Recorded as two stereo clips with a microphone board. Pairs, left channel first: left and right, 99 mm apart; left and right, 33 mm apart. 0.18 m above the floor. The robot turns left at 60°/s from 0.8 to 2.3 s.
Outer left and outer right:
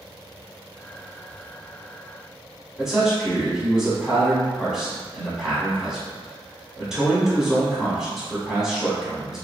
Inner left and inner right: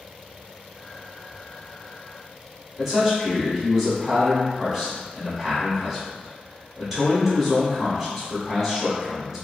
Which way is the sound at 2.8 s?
5° right (ahead or behind).